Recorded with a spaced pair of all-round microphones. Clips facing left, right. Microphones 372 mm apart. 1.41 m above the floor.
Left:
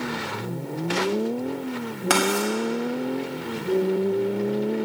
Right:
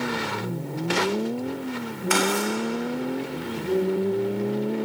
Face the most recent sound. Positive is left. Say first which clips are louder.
# left 1 dB
turn(degrees=80)